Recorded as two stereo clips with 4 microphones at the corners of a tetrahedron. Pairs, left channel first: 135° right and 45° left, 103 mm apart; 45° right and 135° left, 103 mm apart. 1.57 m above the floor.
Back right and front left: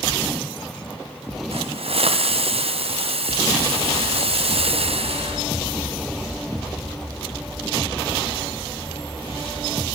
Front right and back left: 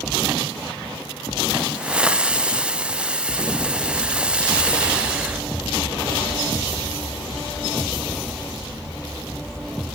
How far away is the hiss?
About 0.6 m.